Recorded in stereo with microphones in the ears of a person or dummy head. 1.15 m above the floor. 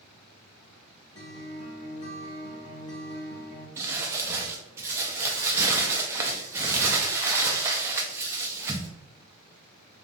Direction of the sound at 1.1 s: 30° left (ahead or behind).